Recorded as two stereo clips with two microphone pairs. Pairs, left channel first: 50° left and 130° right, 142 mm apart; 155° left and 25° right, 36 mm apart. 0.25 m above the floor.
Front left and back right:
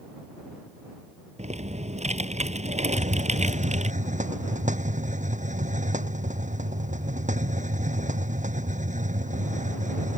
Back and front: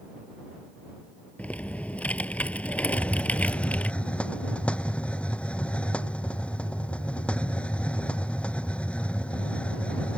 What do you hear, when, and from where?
1.4 s typing on a keyboard: 160° right
2.9 s a hiss: 155° right